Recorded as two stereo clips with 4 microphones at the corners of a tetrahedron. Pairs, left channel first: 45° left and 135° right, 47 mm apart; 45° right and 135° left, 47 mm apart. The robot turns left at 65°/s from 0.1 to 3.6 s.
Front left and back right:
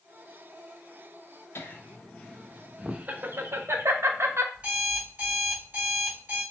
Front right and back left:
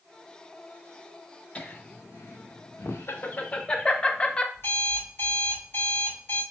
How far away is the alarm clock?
About 1.9 m.